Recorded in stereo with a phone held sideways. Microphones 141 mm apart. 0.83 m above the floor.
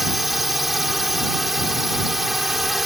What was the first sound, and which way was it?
A drone, centre (ahead or behind).